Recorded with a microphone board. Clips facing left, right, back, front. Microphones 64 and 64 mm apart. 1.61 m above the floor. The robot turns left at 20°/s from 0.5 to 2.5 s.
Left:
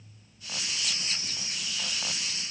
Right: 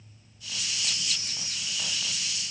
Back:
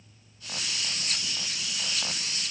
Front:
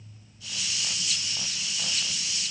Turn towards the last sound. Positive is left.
No sound to turn to.